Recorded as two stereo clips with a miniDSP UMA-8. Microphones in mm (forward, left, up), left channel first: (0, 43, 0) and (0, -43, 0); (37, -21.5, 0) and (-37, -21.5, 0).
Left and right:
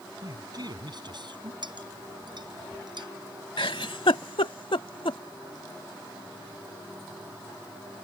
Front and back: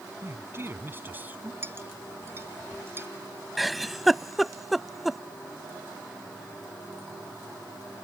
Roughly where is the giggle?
Left.